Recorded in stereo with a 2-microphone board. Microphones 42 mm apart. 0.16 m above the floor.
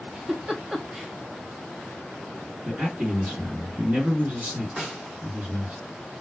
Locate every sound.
0.1 s a giggle: 20° right (ahead or behind), 0.6 m
2.6 s a man speaking: 45° right (ahead or behind), 2 m
4.8 s a snare drum: 25° right (ahead or behind), 1.9 m